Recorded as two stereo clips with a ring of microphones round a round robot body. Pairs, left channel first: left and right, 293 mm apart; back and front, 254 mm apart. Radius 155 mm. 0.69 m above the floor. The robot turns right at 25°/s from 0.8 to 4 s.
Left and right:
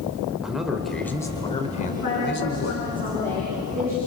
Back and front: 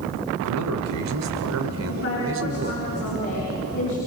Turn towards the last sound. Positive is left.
turn(degrees=-170)